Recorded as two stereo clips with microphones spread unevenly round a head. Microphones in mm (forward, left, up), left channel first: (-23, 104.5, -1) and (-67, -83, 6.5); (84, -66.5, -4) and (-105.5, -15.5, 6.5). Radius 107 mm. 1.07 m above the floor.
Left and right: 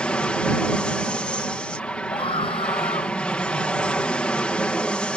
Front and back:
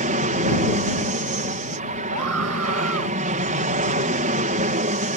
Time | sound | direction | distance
0.0 | an aircraft | 155° left | ?
2.1 | a scream | 140° left | ?